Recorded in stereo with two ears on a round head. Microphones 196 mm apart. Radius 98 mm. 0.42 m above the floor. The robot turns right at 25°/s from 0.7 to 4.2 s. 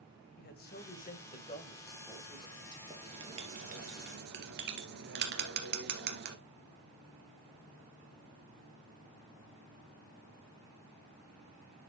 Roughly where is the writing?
Centre.